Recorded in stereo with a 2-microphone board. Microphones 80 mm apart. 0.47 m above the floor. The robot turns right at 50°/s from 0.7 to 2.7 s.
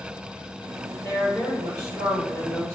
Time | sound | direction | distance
1.0 | a woman speaking | 10° left | 1.6 m